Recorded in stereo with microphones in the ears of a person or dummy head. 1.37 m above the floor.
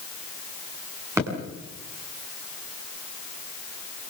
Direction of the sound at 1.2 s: 20° right (ahead or behind).